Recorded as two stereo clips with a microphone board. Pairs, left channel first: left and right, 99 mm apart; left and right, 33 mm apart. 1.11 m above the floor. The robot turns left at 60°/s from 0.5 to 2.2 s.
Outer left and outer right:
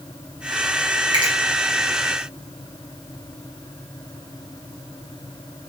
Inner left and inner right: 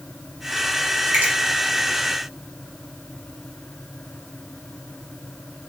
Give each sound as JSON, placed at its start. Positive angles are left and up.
{"t": 1.1, "sound": "a finger snap", "side_deg": -50, "distance_m": 1.1}